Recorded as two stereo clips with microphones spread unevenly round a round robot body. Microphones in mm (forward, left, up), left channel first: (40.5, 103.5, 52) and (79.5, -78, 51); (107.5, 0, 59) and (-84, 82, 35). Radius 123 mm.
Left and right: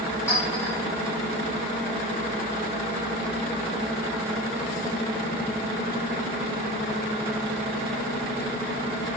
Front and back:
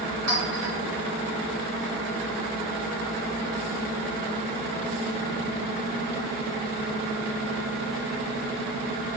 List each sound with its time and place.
0.3 s a clink: straight behind, 1.7 m